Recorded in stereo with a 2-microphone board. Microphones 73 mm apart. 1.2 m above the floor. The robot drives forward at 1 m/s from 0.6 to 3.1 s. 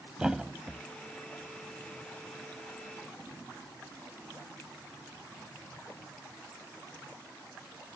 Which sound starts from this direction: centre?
A thud, at 0.2 s.